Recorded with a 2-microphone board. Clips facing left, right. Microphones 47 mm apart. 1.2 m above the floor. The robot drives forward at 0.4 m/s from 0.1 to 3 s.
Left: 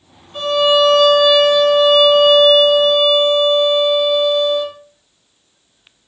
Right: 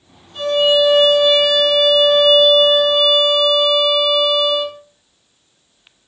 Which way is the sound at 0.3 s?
60° left (ahead or behind).